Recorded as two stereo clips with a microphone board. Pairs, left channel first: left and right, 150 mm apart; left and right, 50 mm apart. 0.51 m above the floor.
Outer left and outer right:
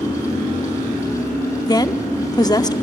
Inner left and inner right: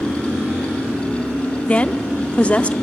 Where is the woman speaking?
25° left (ahead or behind), 0.7 m.